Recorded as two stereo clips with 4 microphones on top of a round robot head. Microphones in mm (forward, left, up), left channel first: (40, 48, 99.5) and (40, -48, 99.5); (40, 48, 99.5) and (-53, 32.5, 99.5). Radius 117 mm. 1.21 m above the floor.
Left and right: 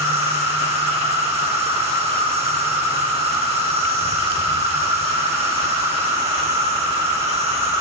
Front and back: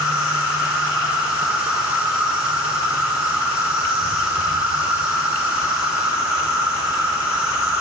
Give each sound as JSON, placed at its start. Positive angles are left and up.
{"t": 0.0, "sound": "an insect", "azimuth_deg": -95, "distance_m": 3.5}